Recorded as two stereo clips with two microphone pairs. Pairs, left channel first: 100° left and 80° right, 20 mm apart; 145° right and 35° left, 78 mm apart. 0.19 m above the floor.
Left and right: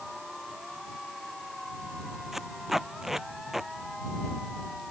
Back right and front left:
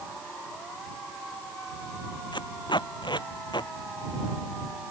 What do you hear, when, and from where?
2.3 s tape being pulled: 160° right